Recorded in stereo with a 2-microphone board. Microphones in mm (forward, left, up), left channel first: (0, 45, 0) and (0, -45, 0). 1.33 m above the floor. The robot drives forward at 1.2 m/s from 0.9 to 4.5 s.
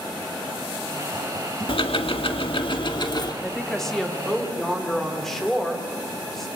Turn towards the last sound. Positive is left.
turn(degrees=5)  # may be behind; listen again after turning